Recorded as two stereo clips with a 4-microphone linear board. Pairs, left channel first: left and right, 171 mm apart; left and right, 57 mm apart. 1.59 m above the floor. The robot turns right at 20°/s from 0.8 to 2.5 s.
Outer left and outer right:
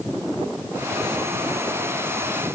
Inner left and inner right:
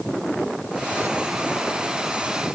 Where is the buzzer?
No buzzer in this recording.